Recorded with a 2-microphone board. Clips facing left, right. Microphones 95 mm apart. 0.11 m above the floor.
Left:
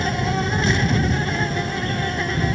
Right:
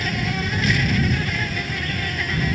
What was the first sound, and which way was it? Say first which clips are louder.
An insect: left 3 dB; 30° left (ahead or behind).